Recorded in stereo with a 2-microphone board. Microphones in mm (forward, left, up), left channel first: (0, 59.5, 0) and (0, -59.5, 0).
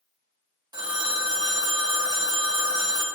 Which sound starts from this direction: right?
A phone ringing, at 0.7 s.